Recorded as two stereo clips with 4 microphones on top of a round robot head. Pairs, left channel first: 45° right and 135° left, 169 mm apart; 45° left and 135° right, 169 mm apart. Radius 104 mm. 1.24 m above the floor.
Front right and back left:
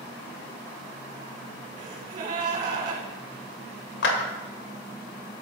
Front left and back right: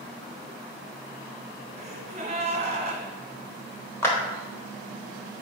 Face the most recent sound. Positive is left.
turn(degrees=-30)